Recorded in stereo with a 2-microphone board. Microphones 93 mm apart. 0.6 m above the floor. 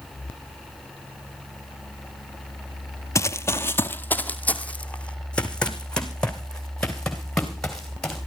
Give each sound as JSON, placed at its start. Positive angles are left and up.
{"t": 3.1, "sound": "running footsteps", "side_deg": 35, "distance_m": 0.6}